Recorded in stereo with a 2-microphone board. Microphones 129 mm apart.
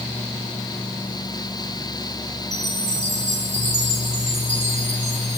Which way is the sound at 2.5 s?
60° right (ahead or behind).